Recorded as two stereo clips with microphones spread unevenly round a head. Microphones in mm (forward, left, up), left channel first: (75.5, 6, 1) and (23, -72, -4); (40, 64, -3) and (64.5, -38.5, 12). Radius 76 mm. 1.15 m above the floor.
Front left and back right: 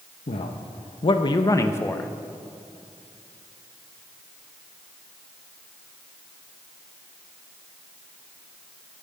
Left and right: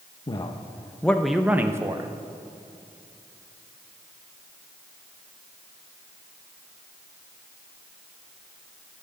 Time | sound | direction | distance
0.3 | a man speaking | 55° left | 0.9 m